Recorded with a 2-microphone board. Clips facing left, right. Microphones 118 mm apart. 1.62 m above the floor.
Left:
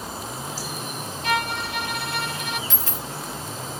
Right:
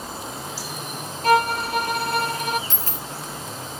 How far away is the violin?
About 0.6 m.